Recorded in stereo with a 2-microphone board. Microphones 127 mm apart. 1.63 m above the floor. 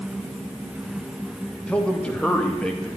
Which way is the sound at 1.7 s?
10° left (ahead or behind).